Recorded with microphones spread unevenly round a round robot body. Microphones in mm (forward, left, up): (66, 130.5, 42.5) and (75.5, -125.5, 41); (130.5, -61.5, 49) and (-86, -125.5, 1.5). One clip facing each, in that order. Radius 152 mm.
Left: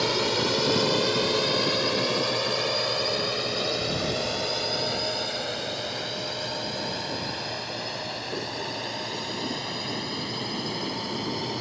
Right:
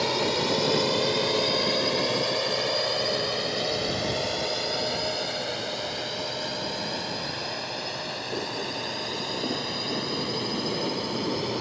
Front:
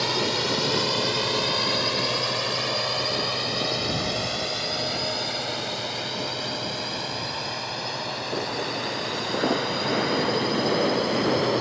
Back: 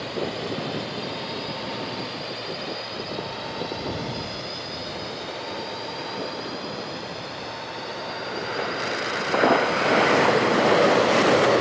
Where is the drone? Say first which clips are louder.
Even, front 2 dB; 20° left; by 11.6 s 5° right.